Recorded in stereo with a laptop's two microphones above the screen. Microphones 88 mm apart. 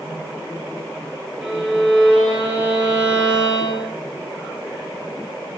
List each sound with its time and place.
1.4 s a violin: 10° right (ahead or behind), 7.5 m